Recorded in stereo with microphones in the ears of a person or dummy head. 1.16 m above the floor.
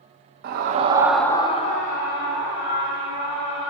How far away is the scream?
About 0.8 m.